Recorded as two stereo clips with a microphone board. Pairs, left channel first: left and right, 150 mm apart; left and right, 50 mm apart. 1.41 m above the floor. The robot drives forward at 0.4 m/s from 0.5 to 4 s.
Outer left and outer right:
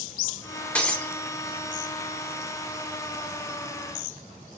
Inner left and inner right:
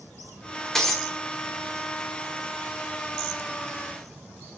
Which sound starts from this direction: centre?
Breaking glass, at 0.8 s.